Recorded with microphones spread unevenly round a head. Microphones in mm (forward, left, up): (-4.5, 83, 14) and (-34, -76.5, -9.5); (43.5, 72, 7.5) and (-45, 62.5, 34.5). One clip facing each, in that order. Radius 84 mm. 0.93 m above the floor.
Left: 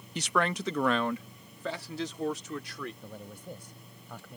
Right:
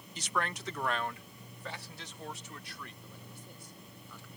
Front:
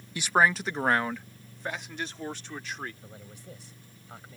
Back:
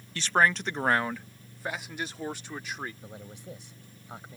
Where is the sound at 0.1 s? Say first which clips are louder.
Left 7 dB, front 1 dB; 60° left; by 2.9 s 105° left.